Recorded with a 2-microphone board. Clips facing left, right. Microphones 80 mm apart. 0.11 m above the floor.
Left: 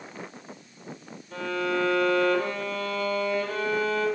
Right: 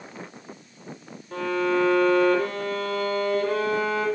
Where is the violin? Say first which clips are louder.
Right 4 dB; 55° right (ahead or behind), 3.5 m.